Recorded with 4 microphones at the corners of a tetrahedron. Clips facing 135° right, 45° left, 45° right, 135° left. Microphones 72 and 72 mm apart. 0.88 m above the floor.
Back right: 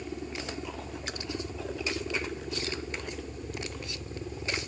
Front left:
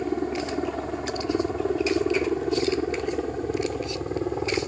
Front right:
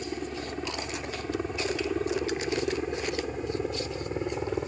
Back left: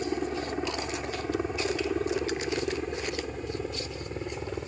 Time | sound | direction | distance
0.0 | a helicopter | 70° left | ?